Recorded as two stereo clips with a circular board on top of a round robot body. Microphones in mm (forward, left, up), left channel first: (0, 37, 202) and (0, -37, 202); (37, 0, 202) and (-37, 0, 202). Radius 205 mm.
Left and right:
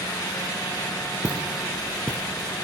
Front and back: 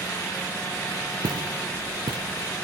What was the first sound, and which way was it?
Footsteps, 165° right.